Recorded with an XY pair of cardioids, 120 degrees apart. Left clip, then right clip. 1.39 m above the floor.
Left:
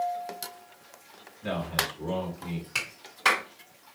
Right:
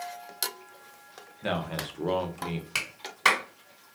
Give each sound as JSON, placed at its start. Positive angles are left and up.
{"t": 1.4, "sound": "a man speaking", "azimuth_deg": -65, "distance_m": 1.1}
{"t": 2.8, "sound": "a clap", "azimuth_deg": -30, "distance_m": 1.4}